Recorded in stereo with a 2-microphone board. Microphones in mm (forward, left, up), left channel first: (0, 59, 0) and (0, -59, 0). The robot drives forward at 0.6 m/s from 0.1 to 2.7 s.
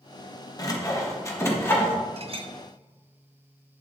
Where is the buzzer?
No buzzer in this recording.